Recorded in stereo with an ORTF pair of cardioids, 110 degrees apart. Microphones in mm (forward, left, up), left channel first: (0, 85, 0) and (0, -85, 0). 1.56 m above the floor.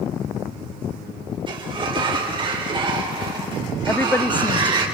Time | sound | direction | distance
1.5 | a sliding door | 30° right | 4 m
3.9 | a woman speaking | 10° left | 0.5 m